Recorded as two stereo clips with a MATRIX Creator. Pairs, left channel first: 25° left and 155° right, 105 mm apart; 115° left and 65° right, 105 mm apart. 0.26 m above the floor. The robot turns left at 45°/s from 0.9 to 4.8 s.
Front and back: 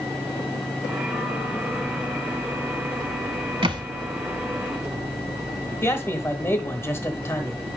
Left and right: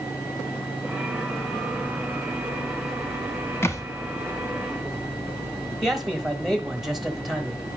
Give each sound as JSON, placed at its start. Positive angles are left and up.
{"t": 3.6, "sound": "a thud", "azimuth_deg": 175, "distance_m": 1.0}
{"t": 5.8, "sound": "a man speaking", "azimuth_deg": 20, "distance_m": 1.1}